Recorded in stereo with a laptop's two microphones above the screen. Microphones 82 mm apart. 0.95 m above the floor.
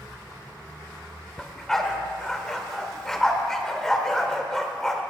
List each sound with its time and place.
1.4 s a dog barking: 10° left (ahead or behind), 1.2 m